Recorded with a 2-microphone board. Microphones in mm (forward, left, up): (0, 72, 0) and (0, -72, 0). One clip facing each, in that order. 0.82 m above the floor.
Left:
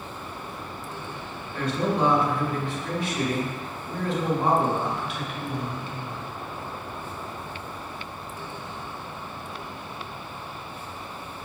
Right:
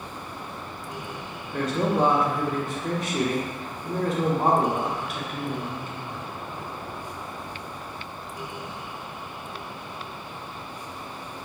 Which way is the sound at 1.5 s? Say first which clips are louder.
Right 2 dB; 45° right (ahead or behind).